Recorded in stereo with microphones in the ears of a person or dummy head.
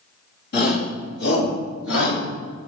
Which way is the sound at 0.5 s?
60° left (ahead or behind).